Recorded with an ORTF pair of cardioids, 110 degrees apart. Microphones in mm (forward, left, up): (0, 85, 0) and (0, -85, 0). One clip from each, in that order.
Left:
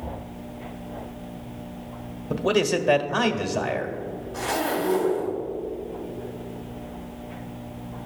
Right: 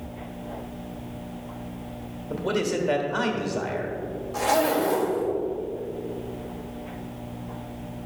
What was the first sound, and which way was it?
A man speaking, 30° left.